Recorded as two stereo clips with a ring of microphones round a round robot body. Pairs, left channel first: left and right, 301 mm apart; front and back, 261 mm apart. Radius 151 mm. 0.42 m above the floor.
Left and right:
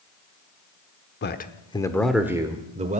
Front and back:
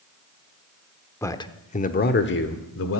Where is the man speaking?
75° left, 1.1 m; by 3.0 s 30° right, 1.5 m.